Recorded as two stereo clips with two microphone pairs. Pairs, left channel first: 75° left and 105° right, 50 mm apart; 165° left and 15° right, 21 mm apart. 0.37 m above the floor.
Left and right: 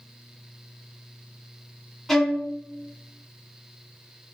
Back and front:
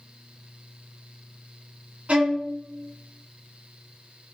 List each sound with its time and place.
2.1 s a violin: 10° right, 0.9 m